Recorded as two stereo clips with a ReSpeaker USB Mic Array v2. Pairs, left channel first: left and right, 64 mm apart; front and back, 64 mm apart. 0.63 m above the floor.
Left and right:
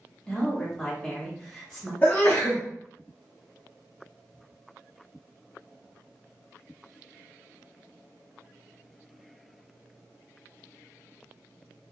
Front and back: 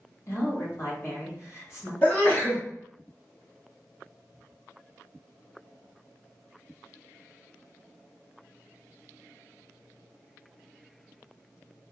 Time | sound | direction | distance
0.3 | a woman speaking | 15° left | 1.7 m
2.0 | a sneeze | 40° left | 1.1 m